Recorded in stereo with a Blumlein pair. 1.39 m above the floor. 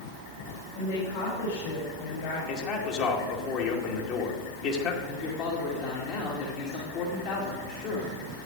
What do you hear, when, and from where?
0.8 s a woman speaking: 50° left, 6 m
2.5 s a man speaking: 40° left, 2.5 m
5.0 s a man speaking: 45° left, 2.5 m